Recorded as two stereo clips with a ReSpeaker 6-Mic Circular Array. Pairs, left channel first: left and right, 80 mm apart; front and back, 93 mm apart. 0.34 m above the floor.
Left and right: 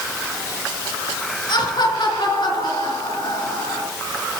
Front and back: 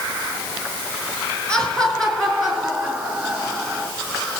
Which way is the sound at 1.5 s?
80° left.